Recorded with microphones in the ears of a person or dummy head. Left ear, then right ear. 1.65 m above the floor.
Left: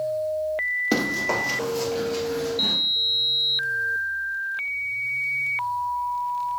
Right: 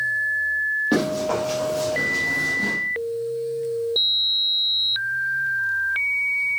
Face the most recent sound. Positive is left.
turn(degrees=-5)  # may be behind; listen again after turning